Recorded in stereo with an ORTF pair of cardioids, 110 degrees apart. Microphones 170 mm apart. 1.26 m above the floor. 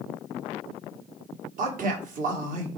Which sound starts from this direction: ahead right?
A man speaking, at 1.6 s.